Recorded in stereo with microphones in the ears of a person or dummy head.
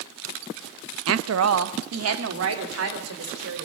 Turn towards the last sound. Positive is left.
turn(degrees=-70)  # may be behind; listen again after turning